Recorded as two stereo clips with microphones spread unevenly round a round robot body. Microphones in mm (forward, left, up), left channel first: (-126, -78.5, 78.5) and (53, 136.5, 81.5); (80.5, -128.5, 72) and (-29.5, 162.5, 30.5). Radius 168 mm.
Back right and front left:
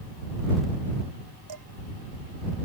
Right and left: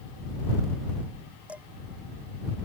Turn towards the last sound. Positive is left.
turn(degrees=25)